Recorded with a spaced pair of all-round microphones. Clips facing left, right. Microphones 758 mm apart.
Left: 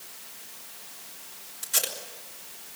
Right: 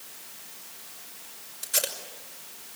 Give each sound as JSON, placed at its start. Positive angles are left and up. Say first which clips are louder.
{"t": 1.6, "sound": "tape being pulled", "louder": "right 2 dB", "side_deg": 35, "distance_m": 5.5}